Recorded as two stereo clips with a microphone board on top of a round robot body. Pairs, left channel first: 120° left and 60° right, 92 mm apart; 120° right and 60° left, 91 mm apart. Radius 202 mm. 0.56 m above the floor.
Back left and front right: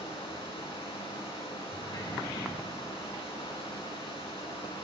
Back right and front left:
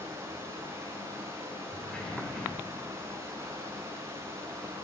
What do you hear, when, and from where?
0.0 s running water: 120° left, 7.5 m
1.7 s a sliding door: 160° left, 7.5 m